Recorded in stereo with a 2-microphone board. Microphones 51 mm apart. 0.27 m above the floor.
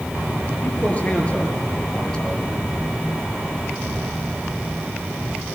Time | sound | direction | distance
0.6 | a man speaking | 30° left (ahead or behind) | 6 m